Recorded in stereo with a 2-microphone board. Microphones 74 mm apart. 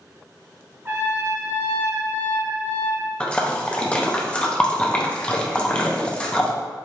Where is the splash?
15° left (ahead or behind), 0.5 m.